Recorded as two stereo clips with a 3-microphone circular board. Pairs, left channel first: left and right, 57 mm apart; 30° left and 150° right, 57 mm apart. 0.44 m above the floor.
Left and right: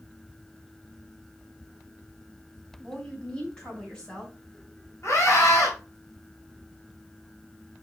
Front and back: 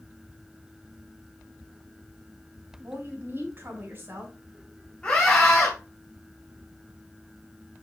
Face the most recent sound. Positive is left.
turn(degrees=100)